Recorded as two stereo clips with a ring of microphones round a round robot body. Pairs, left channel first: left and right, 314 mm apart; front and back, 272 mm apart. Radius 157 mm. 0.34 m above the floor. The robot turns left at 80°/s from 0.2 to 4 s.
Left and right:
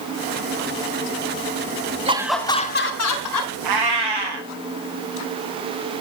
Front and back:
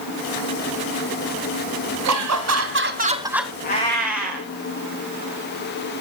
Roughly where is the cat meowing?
Ahead right.